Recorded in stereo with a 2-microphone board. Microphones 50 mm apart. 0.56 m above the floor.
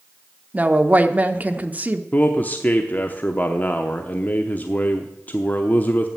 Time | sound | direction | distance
0.5 | a woman speaking | 30° right (ahead or behind) | 0.8 m
2.1 | a man speaking | 35° left (ahead or behind) | 0.8 m